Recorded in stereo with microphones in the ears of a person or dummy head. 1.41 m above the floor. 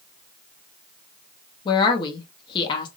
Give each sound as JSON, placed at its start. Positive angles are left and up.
{"t": 1.6, "sound": "a woman speaking", "side_deg": 25, "distance_m": 0.8}